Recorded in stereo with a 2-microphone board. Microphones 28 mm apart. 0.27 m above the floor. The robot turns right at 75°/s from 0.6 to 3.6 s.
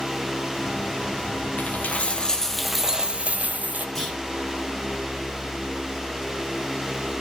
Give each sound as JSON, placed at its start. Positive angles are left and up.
{"t": 1.6, "sound": "a dropped coin", "azimuth_deg": 100, "distance_m": 1.0}
{"t": 4.0, "sound": "a clunk", "side_deg": 5, "distance_m": 8.0}